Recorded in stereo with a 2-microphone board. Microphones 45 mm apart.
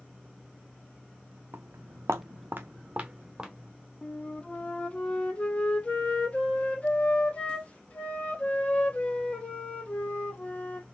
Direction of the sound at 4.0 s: 30° left (ahead or behind).